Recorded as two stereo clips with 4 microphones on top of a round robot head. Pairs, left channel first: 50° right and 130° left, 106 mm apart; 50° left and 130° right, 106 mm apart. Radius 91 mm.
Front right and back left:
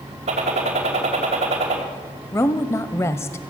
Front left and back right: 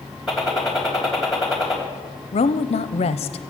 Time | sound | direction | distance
0.3 | a gunshot | 140° left | 3 m
2.3 | a woman speaking | 20° left | 0.5 m